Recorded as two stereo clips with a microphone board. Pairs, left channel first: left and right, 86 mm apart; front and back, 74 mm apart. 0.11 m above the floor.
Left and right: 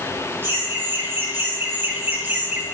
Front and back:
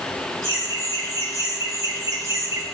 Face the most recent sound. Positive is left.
turn(degrees=-150)